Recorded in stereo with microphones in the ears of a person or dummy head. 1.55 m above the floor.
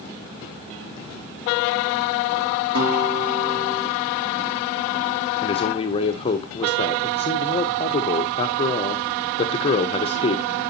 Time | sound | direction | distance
2.8 | a guitar | 80° right | 3.5 m
5.4 | a man speaking | 25° left (ahead or behind) | 1.5 m